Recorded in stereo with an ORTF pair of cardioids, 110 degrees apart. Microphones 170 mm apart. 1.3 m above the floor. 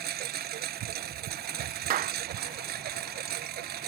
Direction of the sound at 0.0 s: 70° right.